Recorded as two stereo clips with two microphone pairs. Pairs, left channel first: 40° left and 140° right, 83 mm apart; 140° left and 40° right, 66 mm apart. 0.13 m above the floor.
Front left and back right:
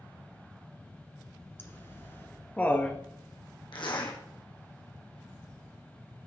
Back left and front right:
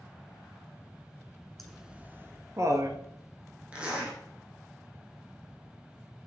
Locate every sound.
1.6 s laughter: 55° left, 1.2 m; by 3.0 s 30° right, 1.9 m
3.7 s a zipper: 35° left, 3 m